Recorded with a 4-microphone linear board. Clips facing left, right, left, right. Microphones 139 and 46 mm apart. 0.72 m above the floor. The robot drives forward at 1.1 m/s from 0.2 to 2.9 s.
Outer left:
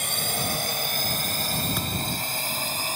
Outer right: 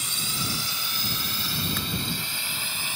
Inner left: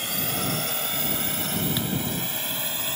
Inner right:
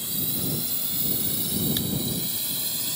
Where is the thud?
10° left (ahead or behind).